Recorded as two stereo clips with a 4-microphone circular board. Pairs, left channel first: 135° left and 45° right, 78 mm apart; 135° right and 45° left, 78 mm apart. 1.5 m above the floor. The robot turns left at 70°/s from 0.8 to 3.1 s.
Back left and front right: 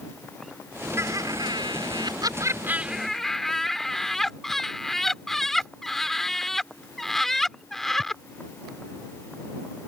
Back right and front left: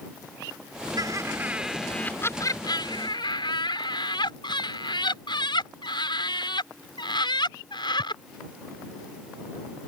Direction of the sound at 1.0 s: 10° left.